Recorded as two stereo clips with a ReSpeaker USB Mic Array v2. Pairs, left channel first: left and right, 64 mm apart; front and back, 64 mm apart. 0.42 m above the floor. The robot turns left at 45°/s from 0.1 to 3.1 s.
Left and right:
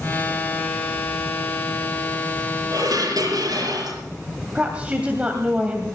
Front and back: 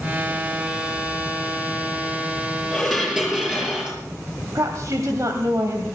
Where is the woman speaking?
160° right, 2 m.